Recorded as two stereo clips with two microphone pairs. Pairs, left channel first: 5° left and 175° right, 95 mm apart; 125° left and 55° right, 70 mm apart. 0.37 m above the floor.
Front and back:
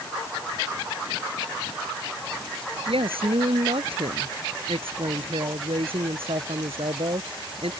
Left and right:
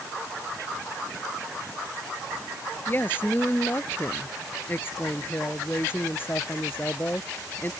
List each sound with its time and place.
2.9 s a woman speaking: straight behind